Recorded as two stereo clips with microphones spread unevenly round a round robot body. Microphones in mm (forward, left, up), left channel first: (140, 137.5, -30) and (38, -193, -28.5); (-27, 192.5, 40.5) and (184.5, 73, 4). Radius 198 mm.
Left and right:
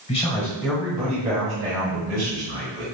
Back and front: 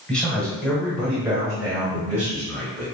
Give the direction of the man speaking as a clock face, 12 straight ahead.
10 o'clock.